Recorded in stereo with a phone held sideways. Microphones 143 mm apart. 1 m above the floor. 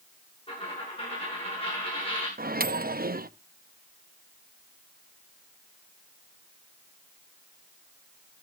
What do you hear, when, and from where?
0.5 s a dropped coin: 40° left (ahead or behind), 9.5 m
2.4 s a microwave: 85° right, 0.7 m